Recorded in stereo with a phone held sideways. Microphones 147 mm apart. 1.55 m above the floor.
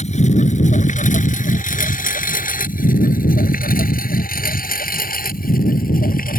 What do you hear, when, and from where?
0.0 s a lawn mower: 50° left (ahead or behind); by 6.4 s 75° left (ahead or behind)